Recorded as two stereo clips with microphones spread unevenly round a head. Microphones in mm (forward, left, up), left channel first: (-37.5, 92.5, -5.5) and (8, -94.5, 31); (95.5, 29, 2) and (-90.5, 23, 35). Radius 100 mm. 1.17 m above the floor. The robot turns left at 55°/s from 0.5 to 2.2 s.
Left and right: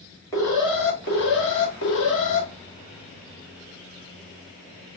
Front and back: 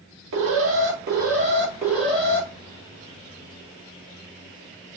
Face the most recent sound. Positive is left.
turn(degrees=85)